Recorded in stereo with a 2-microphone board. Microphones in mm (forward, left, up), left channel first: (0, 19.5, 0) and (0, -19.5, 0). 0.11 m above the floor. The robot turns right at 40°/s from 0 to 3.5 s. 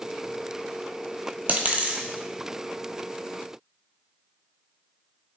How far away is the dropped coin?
About 0.7 m.